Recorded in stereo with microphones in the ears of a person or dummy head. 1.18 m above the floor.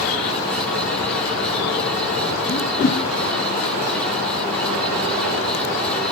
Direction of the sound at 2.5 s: 50° left (ahead or behind).